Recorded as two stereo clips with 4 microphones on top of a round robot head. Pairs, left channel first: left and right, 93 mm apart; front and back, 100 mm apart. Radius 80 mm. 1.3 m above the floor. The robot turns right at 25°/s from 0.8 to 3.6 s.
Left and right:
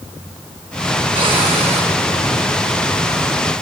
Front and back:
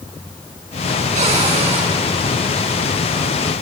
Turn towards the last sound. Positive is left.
turn(degrees=-85)